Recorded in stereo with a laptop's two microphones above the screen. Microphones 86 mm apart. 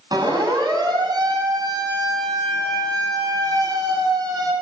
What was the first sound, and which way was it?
A siren, 55° right (ahead or behind).